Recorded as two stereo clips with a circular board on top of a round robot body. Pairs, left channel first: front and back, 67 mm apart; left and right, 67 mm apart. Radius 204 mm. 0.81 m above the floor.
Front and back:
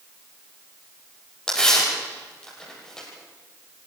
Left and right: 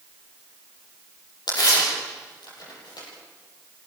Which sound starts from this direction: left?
Tearing paper, at 1.5 s.